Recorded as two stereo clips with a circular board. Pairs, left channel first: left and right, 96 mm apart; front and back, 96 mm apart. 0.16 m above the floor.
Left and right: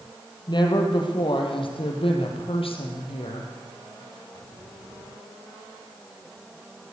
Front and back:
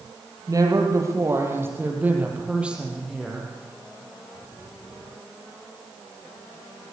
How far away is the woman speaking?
About 4.5 m.